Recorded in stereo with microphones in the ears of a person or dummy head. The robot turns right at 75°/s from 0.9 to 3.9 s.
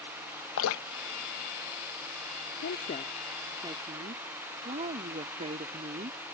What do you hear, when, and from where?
0.6 s dripping: 80° left
2.6 s a woman speaking: 120° left; by 6.2 s 145° right